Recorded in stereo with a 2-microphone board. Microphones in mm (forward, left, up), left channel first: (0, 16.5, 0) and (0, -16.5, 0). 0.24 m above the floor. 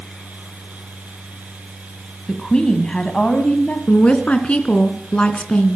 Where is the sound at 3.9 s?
40° left (ahead or behind), 2.5 m.